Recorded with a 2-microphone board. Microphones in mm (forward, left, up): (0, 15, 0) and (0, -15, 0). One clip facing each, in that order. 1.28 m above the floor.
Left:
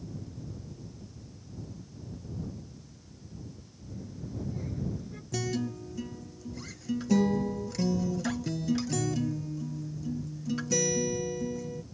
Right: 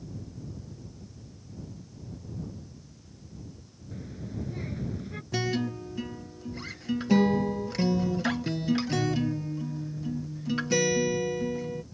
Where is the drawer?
No drawer in this recording.